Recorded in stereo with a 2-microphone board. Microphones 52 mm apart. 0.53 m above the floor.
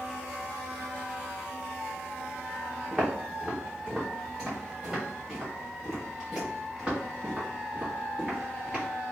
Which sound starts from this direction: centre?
Footsteps, at 2.9 s.